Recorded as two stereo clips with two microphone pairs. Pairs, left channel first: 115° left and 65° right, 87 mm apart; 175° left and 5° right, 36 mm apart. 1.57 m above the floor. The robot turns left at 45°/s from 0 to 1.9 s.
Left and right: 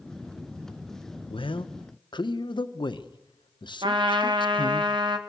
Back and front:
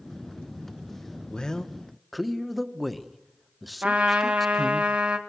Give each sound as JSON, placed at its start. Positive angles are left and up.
{"t": 1.3, "sound": "a man speaking", "azimuth_deg": 115, "distance_m": 1.3}
{"t": 3.8, "sound": "a trumpet", "azimuth_deg": -50, "distance_m": 1.7}